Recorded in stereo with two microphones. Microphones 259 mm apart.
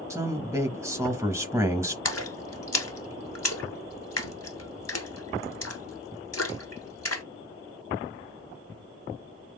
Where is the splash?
70° left (ahead or behind), 1.0 m.